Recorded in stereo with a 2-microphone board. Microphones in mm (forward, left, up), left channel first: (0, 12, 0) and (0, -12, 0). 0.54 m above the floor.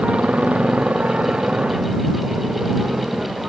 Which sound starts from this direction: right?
A motorcycle, at 0.0 s.